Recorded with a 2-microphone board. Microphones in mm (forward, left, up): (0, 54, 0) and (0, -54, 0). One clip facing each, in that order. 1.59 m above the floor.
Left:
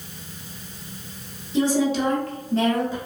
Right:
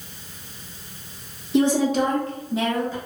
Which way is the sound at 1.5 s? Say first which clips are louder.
Right 2 dB; 65° right (ahead or behind).